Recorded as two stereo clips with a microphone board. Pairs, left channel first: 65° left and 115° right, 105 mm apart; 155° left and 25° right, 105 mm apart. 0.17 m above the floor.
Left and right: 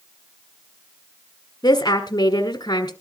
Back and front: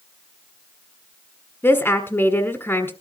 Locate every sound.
1.6 s a woman speaking: 95° left, 1.4 m